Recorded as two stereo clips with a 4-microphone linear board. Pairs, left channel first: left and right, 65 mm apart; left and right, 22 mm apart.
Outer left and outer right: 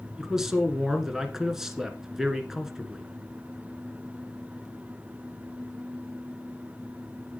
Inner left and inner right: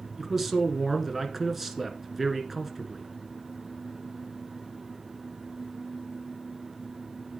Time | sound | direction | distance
0.2 | a man speaking | 10° right (ahead or behind) | 1.7 m